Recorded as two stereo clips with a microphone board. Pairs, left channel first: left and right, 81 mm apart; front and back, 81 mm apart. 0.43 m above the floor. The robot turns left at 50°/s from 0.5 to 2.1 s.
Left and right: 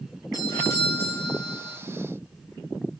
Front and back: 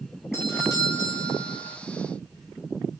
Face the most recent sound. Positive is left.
turn(degrees=-25)